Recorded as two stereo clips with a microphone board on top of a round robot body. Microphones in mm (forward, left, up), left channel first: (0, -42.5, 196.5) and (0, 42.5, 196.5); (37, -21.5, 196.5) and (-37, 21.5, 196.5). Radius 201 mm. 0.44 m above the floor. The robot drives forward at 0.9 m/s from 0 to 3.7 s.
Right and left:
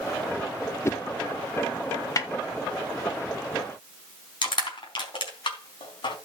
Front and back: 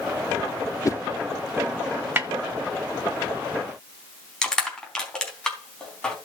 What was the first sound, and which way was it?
A whoosh, 50° right.